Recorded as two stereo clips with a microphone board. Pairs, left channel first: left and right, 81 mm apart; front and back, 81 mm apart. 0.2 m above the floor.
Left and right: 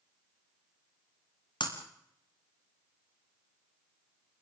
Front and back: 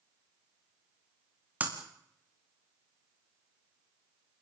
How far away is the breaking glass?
About 5 m.